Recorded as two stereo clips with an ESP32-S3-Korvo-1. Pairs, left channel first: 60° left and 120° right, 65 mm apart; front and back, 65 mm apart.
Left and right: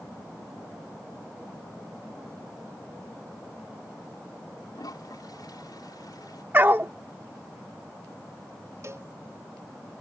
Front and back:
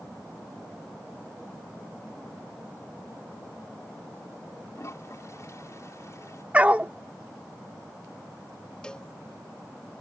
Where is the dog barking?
135° right.